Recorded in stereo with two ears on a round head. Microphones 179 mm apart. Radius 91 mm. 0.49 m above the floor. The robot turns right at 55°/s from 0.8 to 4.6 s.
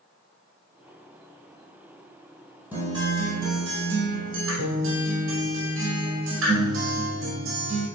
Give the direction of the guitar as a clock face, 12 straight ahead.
6 o'clock.